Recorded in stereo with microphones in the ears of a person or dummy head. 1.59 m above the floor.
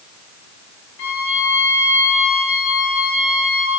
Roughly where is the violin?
Left.